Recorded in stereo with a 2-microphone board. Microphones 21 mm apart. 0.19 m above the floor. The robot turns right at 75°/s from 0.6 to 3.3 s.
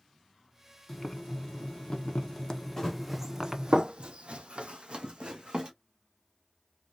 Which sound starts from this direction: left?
Running footsteps, at 2.8 s.